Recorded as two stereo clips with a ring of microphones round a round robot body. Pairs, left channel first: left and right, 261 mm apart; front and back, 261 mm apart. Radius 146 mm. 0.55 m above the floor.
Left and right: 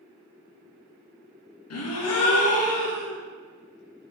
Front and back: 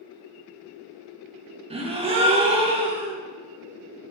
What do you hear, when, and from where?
1.7 s a gasp: 110° left, 0.7 m